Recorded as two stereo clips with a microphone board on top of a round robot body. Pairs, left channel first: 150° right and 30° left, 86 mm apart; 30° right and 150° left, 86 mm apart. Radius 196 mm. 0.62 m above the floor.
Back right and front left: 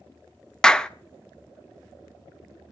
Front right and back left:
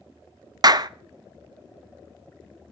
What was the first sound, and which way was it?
A clap, 130° left.